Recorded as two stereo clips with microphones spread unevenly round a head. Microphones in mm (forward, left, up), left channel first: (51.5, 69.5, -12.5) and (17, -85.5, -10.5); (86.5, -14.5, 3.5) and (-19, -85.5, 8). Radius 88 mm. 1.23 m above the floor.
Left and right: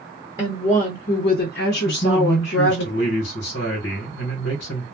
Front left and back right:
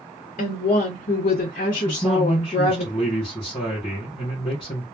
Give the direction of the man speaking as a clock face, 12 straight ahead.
9 o'clock.